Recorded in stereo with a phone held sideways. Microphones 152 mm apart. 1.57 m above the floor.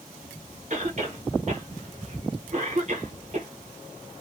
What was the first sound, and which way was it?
A cough, 50° right (ahead or behind).